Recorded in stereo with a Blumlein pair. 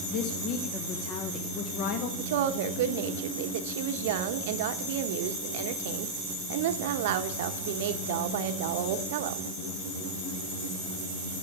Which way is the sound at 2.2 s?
55° right.